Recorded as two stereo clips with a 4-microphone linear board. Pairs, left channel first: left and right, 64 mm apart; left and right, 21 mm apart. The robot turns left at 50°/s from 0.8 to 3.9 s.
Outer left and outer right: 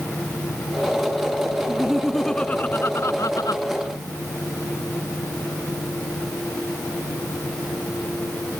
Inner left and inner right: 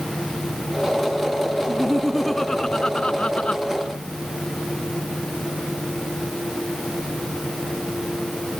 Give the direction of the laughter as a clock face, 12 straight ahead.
5 o'clock.